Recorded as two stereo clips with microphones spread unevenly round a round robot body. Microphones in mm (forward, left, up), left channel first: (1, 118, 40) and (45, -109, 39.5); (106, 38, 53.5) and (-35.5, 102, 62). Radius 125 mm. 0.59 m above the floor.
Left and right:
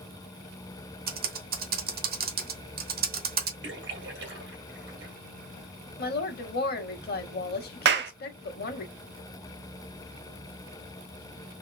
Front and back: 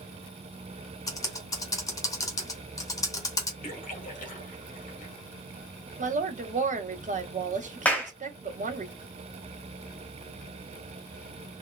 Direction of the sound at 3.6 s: 45° right.